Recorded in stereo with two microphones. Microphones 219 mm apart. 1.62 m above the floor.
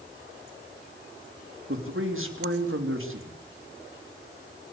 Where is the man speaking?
75° right (ahead or behind), 3.5 m.